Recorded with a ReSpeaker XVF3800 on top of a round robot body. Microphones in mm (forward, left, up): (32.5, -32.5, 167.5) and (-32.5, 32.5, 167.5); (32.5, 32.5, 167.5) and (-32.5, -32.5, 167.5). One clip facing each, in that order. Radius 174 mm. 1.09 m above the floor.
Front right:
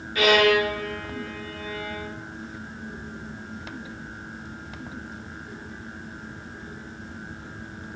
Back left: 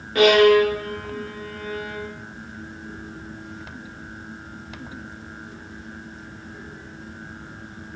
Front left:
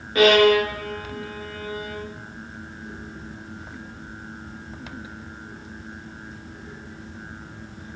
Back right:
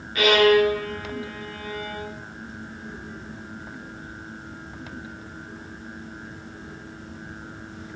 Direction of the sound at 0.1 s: 100° left.